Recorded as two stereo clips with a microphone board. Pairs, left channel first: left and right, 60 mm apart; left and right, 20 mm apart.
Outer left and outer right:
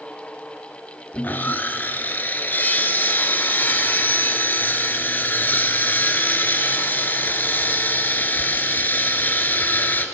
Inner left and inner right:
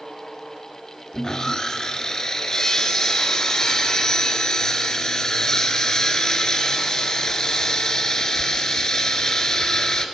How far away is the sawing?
About 1.2 m.